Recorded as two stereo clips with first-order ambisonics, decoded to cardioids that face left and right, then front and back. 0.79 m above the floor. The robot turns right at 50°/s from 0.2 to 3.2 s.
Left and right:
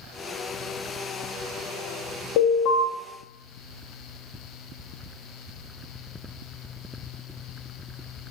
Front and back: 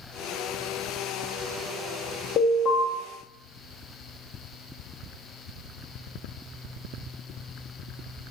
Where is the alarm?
55° left, 0.8 m; by 2.9 s 80° left, 0.8 m.